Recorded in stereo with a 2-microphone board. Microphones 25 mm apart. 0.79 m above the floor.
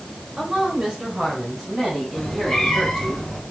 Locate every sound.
0.4 s a woman speaking: 25° right (ahead or behind), 3.5 m; by 3.1 s 10° right (ahead or behind), 6 m
2.1 s a cat meowing: 15° left (ahead or behind), 4.5 m